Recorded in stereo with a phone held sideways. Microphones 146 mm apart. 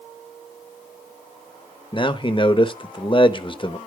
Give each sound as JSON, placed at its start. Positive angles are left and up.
{"t": 1.9, "sound": "a man speaking", "side_deg": 35, "distance_m": 0.9}